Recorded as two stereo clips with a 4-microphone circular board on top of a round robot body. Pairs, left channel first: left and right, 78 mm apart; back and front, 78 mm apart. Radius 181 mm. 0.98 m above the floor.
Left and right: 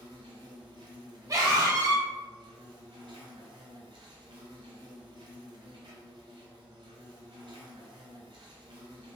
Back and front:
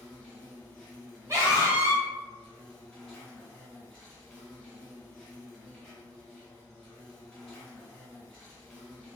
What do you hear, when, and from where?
0.0 s an insect: 95° right, 0.9 m
1.3 s a scream: 50° right, 1.0 m